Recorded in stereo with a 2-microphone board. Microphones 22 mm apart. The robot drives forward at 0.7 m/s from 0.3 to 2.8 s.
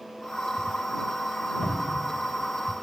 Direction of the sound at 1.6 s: 25° left (ahead or behind).